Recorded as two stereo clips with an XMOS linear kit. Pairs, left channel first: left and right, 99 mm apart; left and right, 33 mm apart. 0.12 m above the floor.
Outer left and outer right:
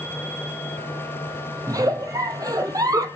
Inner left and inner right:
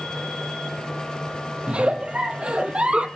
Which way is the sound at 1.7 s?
35° right (ahead or behind).